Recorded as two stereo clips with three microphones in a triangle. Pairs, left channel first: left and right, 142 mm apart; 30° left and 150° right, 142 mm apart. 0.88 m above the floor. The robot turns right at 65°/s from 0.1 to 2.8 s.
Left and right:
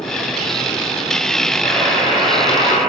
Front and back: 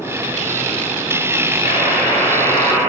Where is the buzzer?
20° left, 2 m; by 2.8 s 100° left, 2 m.